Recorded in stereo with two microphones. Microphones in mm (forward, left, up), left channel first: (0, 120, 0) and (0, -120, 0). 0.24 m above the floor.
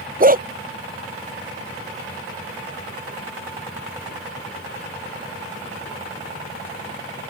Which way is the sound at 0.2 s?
35° right (ahead or behind).